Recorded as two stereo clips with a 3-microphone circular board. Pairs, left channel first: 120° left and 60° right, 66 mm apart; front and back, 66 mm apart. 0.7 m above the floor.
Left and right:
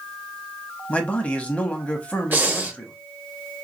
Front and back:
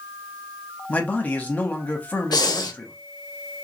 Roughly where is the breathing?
Ahead.